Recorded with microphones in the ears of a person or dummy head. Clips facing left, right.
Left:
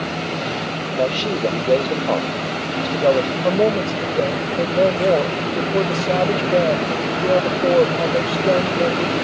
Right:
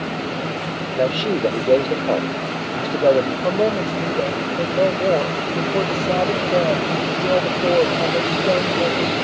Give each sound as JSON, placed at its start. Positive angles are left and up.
{"t": 1.0, "sound": "a man speaking", "side_deg": -15}
{"t": 3.4, "sound": "a woman speaking", "side_deg": 10}